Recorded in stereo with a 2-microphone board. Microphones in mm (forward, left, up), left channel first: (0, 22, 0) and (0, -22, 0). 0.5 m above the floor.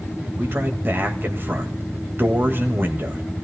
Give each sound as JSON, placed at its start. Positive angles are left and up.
{"t": 0.4, "sound": "a man speaking", "side_deg": -50, "distance_m": 3.0}